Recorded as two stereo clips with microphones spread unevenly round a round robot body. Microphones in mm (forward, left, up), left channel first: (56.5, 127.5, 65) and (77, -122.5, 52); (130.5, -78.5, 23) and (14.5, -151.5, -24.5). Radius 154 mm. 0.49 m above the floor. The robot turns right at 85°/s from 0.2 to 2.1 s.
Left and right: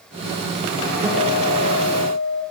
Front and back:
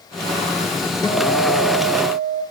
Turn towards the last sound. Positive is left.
turn(degrees=55)